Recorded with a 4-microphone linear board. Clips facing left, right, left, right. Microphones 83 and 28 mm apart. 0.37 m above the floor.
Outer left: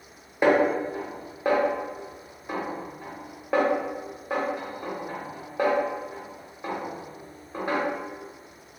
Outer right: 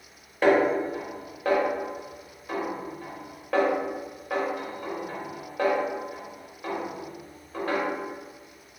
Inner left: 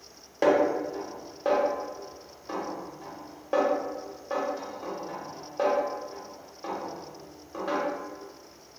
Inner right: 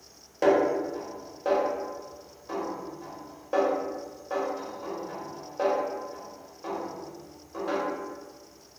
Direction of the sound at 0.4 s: 15° left (ahead or behind).